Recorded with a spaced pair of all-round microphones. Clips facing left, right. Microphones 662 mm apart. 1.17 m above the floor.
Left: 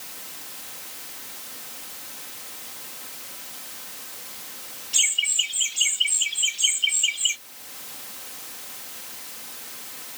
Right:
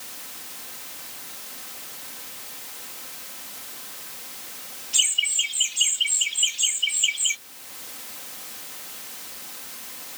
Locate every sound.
4.9 s laughter: 5° left (ahead or behind); by 7.4 s 35° right (ahead or behind)